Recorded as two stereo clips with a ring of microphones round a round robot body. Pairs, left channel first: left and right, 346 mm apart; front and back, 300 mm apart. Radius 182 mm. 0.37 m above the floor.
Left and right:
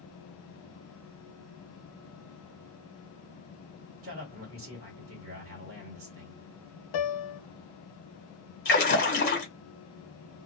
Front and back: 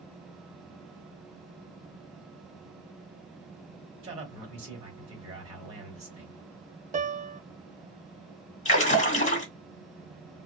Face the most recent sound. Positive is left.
turn(degrees=50)